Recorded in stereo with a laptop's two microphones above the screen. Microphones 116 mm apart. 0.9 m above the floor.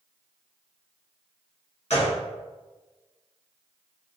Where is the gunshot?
65° left (ahead or behind), 1.7 m.